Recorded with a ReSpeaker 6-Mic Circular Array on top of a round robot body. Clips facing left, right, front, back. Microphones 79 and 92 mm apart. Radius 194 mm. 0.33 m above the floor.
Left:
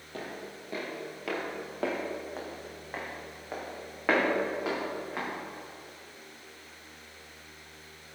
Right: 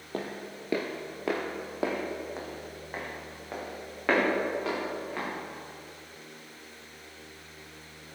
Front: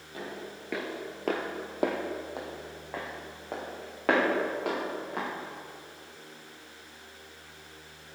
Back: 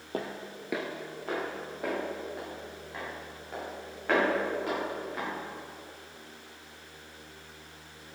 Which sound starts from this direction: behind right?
Footsteps, at 0.1 s.